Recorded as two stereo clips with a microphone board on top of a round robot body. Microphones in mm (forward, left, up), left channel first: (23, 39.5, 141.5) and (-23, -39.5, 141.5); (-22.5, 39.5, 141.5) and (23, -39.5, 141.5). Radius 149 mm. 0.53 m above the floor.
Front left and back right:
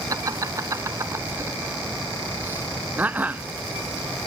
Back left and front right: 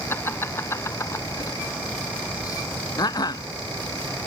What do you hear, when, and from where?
0.1 s laughter: 175° right; by 3.4 s 165° left